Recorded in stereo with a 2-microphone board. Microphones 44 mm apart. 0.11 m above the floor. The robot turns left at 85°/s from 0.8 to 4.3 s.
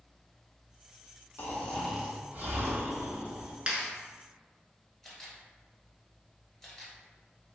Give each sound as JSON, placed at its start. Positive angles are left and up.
{"t": 1.4, "sound": "snoring", "azimuth_deg": 45, "distance_m": 0.8}
{"t": 3.7, "sound": "a clap", "side_deg": -20, "distance_m": 0.9}
{"t": 5.0, "sound": "a camera shutter", "side_deg": 10, "distance_m": 1.1}